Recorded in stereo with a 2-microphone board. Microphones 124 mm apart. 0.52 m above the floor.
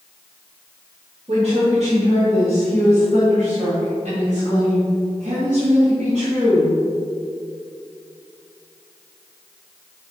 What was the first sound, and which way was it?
A woman speaking, 60° right (ahead or behind).